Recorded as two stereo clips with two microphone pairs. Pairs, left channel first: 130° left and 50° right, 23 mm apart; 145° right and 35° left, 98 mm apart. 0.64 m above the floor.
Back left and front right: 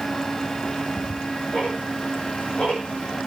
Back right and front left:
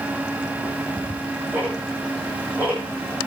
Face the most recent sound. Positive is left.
turn(degrees=105)